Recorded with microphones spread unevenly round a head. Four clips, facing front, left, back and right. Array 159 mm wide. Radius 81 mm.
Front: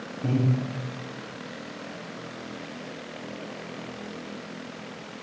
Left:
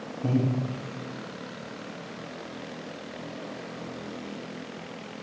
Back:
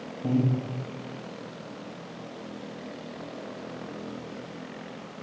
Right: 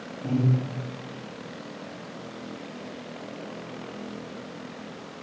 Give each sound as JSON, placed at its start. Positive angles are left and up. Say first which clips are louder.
{"t": 0.2, "sound": "breathing", "louder": "even, back 1 dB", "azimuth_deg": 40, "distance_m": 3.0}